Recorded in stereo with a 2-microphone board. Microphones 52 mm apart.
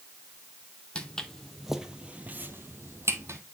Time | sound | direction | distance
0.9 | footsteps | 20° left (ahead or behind) | 0.8 m